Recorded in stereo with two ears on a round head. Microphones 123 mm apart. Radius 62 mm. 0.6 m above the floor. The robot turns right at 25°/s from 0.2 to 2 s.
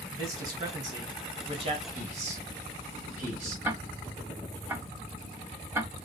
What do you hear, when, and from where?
0.1 s a man speaking: 145° right, 1.4 m; by 1.9 s 105° right, 1.4 m
1.9 s a man speaking: 55° right (ahead or behind), 2.5 m; by 3.5 s 50° right (ahead or behind), 2.5 m
3.6 s ticking: 15° right (ahead or behind), 0.7 m